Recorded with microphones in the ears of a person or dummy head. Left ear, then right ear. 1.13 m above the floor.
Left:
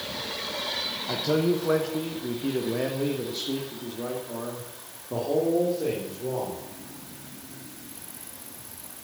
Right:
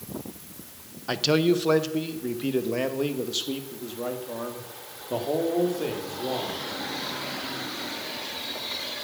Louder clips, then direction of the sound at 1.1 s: Right 4 dB; 55° right (ahead or behind).